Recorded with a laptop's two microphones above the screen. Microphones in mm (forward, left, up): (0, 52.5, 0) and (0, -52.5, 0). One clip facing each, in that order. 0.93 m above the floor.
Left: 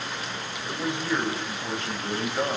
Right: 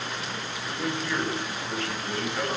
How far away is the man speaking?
About 5.5 m.